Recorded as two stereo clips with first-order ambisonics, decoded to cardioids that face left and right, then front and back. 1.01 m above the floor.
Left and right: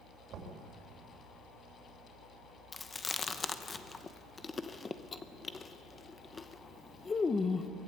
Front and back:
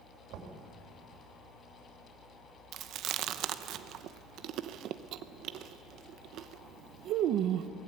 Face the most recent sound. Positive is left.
turn(degrees=160)